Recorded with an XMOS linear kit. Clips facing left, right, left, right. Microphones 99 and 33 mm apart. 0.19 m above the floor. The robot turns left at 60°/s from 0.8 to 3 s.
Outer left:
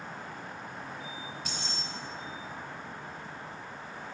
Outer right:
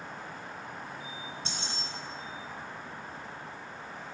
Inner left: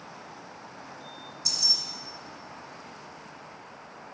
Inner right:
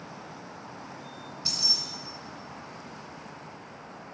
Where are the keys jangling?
30° right (ahead or behind), 1.6 m; by 1.8 s 15° right (ahead or behind), 1.6 m.